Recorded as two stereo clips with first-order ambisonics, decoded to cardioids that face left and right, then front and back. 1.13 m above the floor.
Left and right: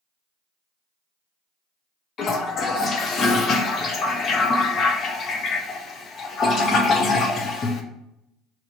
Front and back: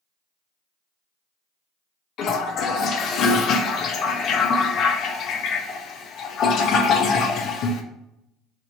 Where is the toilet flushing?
40° left, 0.5 m.